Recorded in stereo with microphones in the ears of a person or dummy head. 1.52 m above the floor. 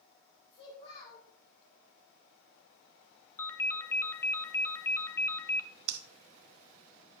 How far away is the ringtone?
About 0.9 m.